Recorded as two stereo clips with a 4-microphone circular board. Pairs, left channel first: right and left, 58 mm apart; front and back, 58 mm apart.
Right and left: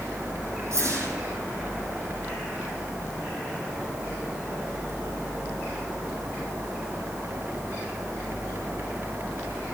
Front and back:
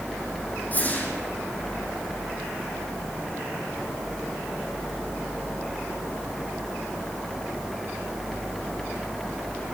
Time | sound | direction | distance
0.7 | a whoosh | 60° left | 3 m